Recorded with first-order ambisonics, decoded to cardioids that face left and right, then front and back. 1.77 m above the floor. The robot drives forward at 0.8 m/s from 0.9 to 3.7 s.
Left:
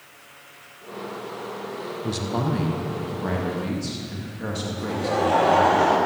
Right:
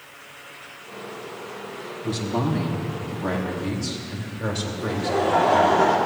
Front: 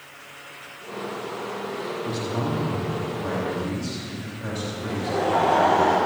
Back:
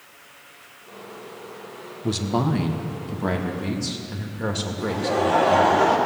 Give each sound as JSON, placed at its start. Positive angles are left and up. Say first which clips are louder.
{"t": 2.0, "sound": "a man speaking", "louder": "right 2 dB, back 7 dB", "azimuth_deg": 165, "distance_m": 1.2}
{"t": 4.8, "sound": "laughter", "louder": "even, back 3 dB", "azimuth_deg": 145, "distance_m": 3.5}